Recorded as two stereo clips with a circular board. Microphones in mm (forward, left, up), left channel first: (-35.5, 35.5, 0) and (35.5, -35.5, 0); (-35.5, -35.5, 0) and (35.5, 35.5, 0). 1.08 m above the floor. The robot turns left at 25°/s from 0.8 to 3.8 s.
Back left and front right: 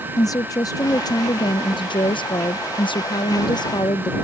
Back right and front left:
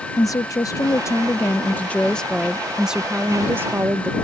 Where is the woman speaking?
Straight behind; by 4.1 s 105° left.